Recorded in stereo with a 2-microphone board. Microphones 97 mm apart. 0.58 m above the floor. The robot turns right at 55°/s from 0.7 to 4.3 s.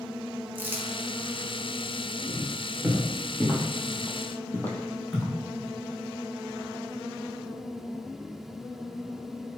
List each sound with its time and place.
0.6 s crumpling: 20° right (ahead or behind), 0.6 m; by 0.9 s 30° right (ahead or behind), 0.6 m
2.3 s footsteps: 60° right (ahead or behind), 1.6 m; by 5.3 s centre (ahead or behind), 1.0 m